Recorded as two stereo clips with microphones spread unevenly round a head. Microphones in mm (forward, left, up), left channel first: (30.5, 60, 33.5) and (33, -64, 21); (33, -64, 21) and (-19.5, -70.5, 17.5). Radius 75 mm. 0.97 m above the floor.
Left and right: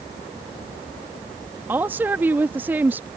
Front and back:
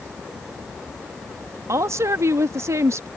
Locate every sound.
1.7 s a woman speaking: 165° right